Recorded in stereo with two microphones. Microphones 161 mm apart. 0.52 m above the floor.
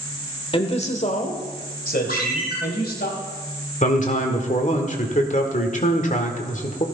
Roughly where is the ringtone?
Left.